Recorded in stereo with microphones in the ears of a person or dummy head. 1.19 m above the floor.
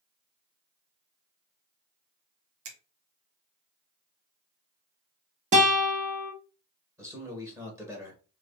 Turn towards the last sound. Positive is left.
turn(degrees=-15)  # may be behind; listen again after turning